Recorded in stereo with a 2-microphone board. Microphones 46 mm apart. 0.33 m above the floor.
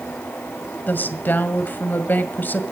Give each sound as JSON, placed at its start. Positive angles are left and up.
{"t": 0.9, "sound": "a woman speaking", "side_deg": 50, "distance_m": 1.7}